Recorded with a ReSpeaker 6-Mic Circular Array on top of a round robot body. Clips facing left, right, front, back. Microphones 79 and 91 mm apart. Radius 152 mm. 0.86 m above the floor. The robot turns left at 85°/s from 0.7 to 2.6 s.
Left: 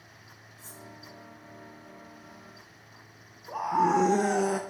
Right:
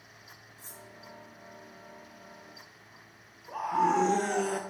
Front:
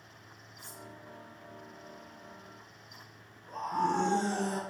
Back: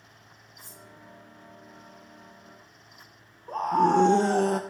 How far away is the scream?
About 0.5 m.